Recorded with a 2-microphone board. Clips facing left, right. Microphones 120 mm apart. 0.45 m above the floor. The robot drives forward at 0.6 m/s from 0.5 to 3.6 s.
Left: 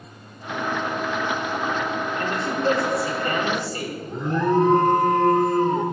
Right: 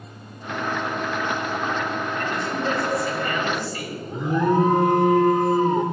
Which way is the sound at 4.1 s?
5° right (ahead or behind).